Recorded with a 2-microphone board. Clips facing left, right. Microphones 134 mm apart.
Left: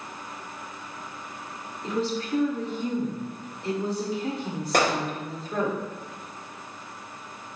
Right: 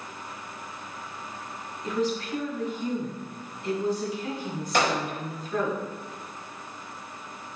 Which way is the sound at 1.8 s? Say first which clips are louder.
Even; 30° left (ahead or behind).